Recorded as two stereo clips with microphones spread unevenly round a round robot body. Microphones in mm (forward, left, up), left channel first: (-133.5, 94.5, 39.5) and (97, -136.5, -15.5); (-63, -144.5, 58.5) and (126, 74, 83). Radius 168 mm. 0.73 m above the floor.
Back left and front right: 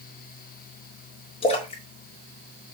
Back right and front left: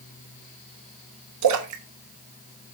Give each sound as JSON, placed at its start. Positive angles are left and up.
{"t": 1.4, "sound": "a splash", "azimuth_deg": 55, "distance_m": 1.3}